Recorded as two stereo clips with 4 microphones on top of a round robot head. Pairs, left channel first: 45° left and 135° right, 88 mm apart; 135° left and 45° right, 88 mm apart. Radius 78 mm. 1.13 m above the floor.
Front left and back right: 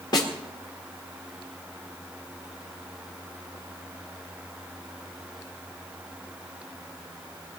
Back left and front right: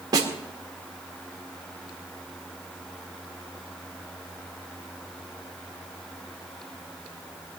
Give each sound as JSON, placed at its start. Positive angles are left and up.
{"t": 0.1, "sound": "a snare drum", "azimuth_deg": 0, "distance_m": 1.8}